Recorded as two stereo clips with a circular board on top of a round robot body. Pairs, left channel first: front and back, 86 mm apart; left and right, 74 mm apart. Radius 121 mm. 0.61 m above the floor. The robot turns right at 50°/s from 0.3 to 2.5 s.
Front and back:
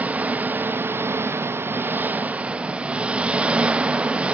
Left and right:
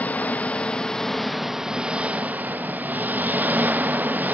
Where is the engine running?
130° left, 0.8 m; by 4.3 s 120° right, 0.8 m.